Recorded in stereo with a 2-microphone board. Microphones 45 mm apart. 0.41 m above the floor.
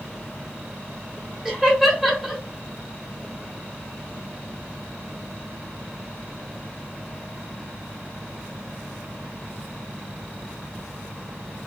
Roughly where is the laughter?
Centre.